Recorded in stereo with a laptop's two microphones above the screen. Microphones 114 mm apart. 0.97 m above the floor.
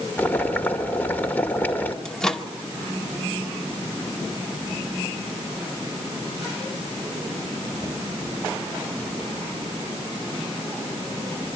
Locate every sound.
0.2 s boiling: 15° left (ahead or behind), 2.5 m
2.0 s a microwave: 5° left (ahead or behind), 1.9 m